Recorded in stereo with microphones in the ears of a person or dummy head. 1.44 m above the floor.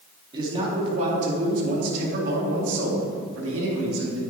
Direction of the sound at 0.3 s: 30° right (ahead or behind).